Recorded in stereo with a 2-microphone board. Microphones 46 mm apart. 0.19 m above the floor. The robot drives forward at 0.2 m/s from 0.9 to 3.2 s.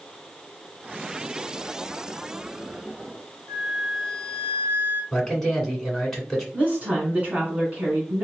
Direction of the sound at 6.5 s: 30° right (ahead or behind).